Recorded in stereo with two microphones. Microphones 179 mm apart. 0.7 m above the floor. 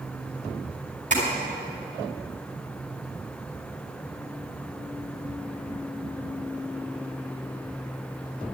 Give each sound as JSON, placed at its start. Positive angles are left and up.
{"t": 1.1, "sound": "tapping", "side_deg": -40, "distance_m": 4.5}